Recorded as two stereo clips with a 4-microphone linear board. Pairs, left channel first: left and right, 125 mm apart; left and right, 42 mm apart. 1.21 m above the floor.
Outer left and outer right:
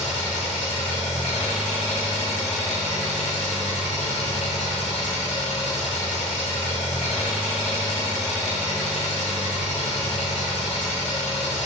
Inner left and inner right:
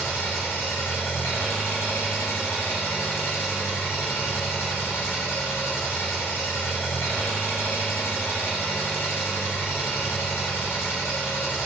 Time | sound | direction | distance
0.0 | an engine running | 65° left (ahead or behind) | 5.5 m